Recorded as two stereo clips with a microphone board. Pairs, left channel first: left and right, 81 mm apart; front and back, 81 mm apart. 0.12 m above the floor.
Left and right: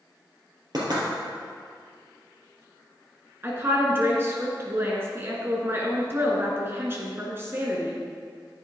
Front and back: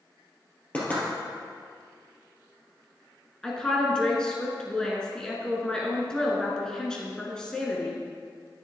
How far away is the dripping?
I don't hear dripping.